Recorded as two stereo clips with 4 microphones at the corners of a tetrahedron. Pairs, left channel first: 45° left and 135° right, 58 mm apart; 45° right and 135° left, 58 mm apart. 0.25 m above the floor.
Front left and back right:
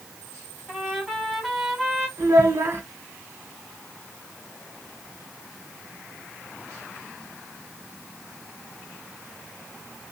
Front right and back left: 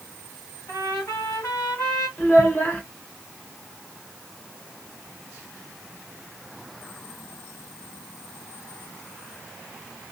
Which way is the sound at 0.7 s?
50° right.